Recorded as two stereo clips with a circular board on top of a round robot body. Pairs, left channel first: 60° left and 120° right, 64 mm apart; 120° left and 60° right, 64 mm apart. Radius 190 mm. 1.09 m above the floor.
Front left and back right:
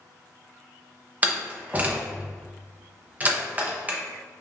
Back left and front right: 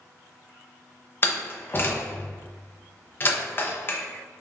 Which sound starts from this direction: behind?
A door slam, at 1.2 s.